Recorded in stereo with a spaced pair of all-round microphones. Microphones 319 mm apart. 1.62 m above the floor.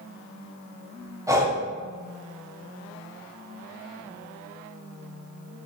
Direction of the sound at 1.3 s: 10° right (ahead or behind).